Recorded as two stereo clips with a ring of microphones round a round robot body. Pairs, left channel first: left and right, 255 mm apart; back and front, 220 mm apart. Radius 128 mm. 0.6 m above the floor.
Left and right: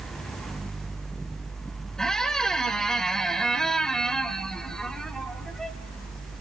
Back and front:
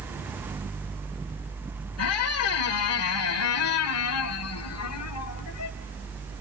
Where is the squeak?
Straight behind, 1.5 m.